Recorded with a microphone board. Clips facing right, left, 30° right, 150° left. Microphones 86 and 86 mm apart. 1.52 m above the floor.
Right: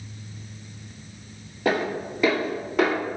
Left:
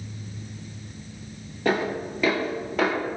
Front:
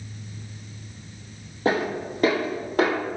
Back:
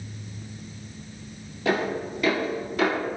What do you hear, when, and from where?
1.6 s footsteps: 5° right, 1.9 m